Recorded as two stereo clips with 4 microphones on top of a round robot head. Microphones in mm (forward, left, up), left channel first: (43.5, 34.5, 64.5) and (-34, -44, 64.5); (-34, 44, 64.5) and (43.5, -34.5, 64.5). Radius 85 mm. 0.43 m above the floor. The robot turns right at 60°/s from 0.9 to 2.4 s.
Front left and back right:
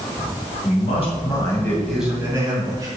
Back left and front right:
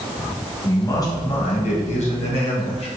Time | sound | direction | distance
0.6 | a man speaking | 75° left | 2.5 m